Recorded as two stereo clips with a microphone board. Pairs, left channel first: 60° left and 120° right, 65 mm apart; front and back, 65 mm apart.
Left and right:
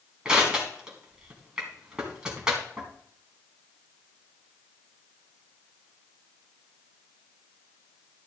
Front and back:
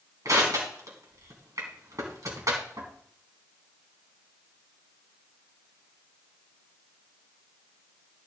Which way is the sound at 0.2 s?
160° left.